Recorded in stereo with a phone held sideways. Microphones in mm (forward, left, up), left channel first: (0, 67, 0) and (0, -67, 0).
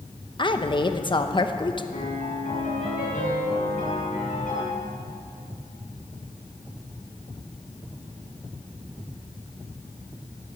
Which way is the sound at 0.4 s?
35° left (ahead or behind).